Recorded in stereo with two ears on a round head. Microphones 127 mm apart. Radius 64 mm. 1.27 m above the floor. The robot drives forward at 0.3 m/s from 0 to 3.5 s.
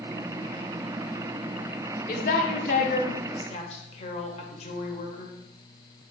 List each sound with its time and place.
2.1 s a woman speaking: 65° left (ahead or behind), 0.7 m; by 5.3 s 50° left (ahead or behind), 0.9 m